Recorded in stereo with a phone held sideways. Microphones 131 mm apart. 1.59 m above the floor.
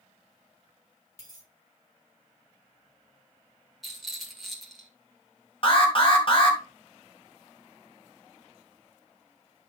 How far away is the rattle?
About 1.7 m.